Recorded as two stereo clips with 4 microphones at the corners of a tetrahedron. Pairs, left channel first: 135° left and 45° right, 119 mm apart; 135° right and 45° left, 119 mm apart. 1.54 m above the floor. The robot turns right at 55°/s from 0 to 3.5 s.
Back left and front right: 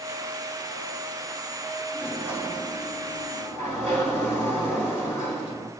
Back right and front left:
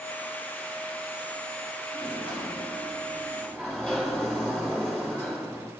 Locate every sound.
1.9 s a sliding door: 135° right, 5.5 m; by 5.7 s 50° right, 5.5 m